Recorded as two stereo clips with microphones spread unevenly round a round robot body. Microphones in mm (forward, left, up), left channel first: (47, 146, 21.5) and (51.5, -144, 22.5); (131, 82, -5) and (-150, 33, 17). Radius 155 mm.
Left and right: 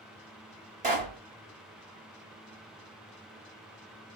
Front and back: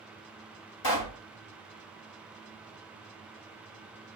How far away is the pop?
About 2.5 m.